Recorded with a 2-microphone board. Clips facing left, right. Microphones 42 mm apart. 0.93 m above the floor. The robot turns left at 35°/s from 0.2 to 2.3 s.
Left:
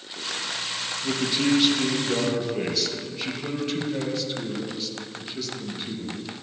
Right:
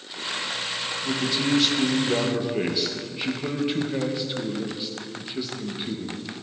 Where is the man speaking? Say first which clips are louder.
Left 2 dB; 25° left, 0.6 m; by 6.2 s 20° right, 0.6 m.